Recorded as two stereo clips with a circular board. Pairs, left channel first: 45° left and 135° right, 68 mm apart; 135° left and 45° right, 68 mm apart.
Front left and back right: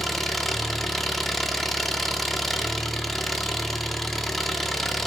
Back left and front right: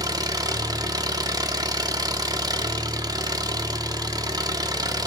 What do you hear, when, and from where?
0.0 s an engine running: 45° right, 0.7 m